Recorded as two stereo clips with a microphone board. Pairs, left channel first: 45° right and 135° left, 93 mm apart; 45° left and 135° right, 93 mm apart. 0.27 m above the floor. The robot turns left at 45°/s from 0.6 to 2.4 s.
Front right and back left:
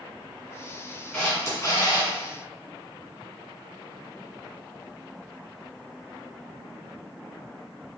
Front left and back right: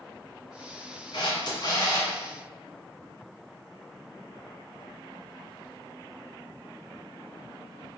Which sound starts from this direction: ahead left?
A camera shutter, at 1.1 s.